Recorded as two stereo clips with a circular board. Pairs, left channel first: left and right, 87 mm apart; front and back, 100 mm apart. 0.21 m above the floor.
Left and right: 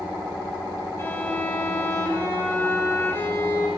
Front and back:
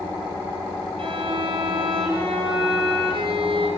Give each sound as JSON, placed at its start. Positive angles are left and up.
{"t": 1.0, "sound": "a violin", "azimuth_deg": 155, "distance_m": 8.0}